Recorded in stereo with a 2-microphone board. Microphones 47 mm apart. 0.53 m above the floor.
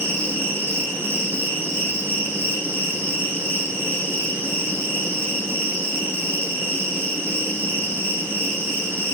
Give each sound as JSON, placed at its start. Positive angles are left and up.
{"t": 0.0, "sound": "an insect", "side_deg": -55, "distance_m": 5.5}